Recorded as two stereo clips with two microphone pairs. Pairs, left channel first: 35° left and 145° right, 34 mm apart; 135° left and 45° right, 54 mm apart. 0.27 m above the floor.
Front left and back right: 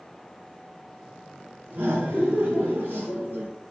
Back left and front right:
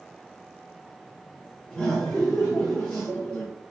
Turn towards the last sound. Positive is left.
turn(degrees=-155)